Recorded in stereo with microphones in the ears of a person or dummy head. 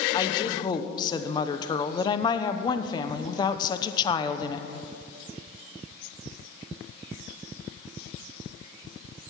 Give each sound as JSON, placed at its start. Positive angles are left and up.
{"t": 0.1, "sound": "a woman speaking", "side_deg": 30, "distance_m": 0.8}